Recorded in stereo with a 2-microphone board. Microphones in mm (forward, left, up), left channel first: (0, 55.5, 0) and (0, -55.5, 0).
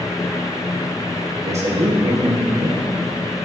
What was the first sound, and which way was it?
A man speaking, 80° right.